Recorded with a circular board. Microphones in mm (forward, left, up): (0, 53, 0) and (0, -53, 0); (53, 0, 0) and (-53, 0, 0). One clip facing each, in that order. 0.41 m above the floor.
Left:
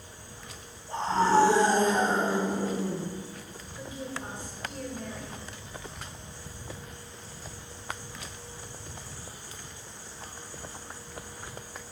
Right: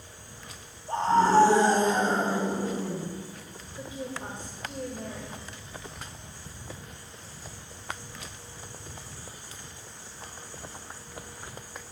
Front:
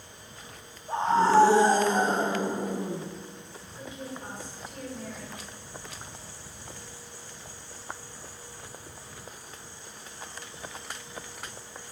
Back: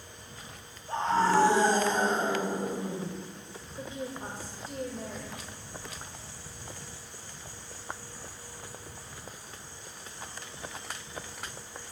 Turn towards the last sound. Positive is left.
turn(degrees=-140)